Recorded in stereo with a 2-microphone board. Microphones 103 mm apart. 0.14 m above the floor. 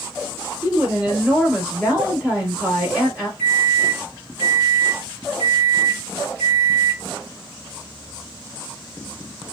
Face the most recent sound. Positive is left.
turn(degrees=20)  # may be behind; listen again after turning